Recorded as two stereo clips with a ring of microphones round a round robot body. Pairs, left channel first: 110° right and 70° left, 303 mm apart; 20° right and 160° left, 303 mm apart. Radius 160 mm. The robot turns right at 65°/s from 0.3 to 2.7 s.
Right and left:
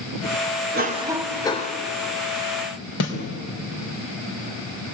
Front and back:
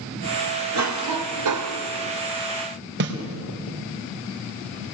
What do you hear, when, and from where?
0.7 s a cough: 125° left, 2.5 m; by 1.8 s 165° right, 2.5 m
3.0 s a snare drum: 150° right, 4 m